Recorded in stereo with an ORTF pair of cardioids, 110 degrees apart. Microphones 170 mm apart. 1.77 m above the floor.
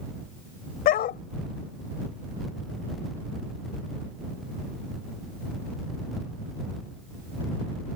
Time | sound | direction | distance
0.8 | a dog barking | 70° left | ?